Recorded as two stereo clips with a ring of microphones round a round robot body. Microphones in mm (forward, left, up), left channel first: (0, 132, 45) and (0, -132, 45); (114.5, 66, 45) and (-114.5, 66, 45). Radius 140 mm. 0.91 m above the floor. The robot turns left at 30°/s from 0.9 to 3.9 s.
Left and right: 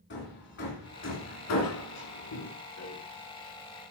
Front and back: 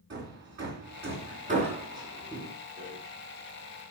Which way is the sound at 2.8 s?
125° left.